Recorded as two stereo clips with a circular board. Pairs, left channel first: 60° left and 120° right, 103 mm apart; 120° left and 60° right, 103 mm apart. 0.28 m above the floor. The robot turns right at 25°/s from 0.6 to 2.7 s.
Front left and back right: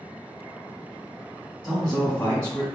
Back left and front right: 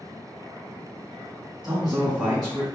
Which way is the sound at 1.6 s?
5° left.